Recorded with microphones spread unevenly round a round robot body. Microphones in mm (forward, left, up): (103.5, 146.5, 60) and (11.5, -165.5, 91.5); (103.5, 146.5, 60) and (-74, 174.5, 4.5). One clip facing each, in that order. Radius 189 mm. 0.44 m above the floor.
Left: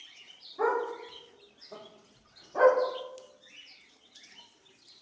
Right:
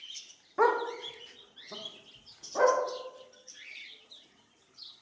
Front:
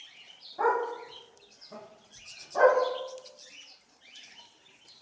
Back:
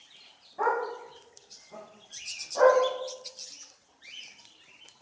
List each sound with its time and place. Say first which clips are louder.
0.6 s a dog barking: right 2 dB, front 1 dB; 105° right, 0.6 m; by 2.8 s 20° right, 1.0 m